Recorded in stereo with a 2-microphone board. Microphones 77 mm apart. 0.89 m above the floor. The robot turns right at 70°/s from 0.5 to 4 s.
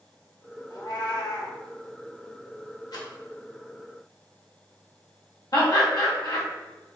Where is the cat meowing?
55° left, 1.1 m; by 1.6 s 120° left, 1.1 m.